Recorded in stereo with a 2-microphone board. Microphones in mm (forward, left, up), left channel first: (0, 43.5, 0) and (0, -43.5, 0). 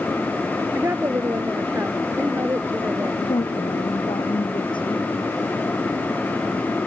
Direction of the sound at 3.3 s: 70° left (ahead or behind).